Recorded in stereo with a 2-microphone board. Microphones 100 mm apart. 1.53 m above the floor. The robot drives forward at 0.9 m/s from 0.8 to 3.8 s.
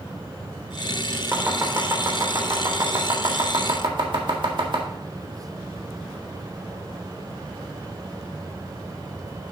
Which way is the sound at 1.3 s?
25° right (ahead or behind).